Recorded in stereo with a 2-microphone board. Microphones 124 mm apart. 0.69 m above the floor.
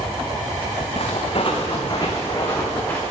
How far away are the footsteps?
About 2 m.